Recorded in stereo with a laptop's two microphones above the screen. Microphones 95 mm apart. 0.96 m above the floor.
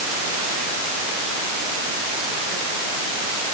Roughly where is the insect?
No insect in this recording.